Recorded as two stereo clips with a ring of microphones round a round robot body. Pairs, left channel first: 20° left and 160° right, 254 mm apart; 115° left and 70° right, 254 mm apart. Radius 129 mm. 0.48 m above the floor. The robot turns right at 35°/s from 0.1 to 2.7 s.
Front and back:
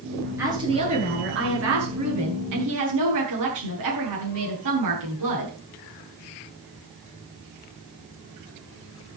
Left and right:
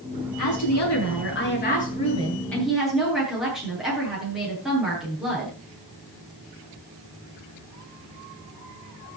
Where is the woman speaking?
125° left, 9 m; by 5.5 s 155° right, 9 m.